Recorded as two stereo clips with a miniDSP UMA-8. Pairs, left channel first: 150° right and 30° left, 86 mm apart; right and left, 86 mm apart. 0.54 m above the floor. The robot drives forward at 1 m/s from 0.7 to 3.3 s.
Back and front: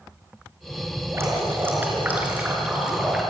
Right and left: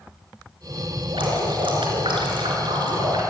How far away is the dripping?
About 4.5 m.